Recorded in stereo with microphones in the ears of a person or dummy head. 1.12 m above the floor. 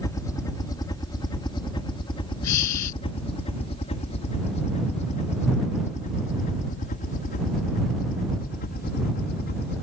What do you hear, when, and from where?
0.0 s a helicopter: 15° left (ahead or behind); by 9.8 s 50° left (ahead or behind)
2.4 s breathing: 80° left